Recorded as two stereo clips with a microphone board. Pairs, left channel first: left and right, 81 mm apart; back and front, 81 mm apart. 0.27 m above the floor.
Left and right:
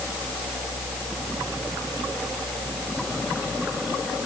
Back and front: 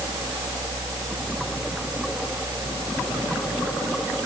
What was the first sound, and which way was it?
Only background noise.